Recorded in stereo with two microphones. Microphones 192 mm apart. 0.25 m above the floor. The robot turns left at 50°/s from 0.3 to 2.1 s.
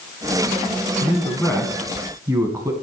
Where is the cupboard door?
I don't hear a cupboard door.